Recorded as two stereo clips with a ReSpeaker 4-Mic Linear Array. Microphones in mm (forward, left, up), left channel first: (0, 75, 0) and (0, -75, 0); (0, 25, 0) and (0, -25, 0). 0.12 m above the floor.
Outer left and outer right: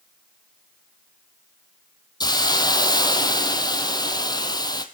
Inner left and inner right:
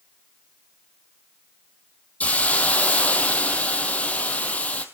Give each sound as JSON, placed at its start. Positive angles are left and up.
{"t": 2.2, "sound": "a hiss", "side_deg": 25, "distance_m": 1.6}